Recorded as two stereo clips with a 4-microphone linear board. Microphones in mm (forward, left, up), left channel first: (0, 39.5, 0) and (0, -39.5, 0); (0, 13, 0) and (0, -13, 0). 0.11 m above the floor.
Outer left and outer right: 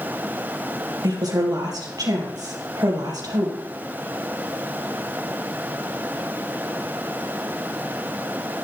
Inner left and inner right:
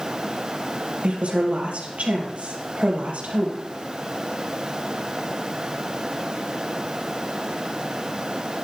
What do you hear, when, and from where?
1.0 s a woman speaking: 55° right (ahead or behind), 3.5 m